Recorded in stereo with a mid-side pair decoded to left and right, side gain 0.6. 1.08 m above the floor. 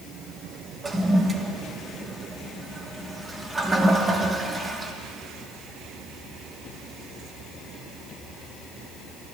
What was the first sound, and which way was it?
A toilet flushing, 20° right.